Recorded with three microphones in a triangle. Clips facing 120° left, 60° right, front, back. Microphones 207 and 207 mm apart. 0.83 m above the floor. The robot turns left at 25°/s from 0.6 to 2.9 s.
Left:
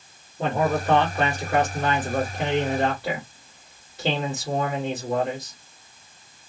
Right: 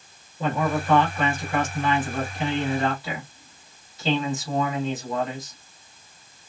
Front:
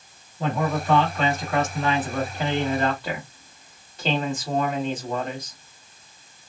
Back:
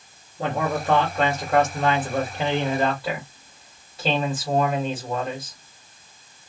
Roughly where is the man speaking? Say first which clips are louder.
Left 2 dB, even; behind left.